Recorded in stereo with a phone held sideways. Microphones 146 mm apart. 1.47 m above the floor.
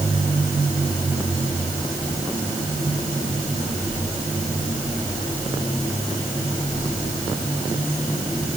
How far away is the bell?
I don't hear a bell.